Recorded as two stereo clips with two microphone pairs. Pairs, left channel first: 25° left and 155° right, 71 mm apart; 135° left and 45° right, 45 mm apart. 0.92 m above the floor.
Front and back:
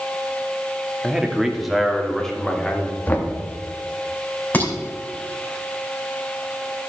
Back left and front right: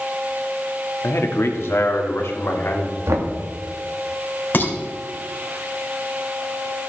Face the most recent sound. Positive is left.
turn(degrees=90)